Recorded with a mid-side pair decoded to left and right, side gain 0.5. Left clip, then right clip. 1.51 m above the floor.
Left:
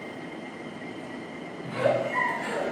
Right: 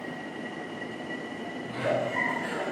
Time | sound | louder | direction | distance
1.6 | a giggle | left 4 dB | 65° left | 1.5 m